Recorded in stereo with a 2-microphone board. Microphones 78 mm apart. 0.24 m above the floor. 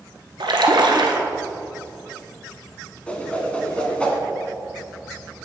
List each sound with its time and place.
0.4 s a splash: 80° right, 1.0 m
3.1 s a whoosh: 15° left (ahead or behind), 1.0 m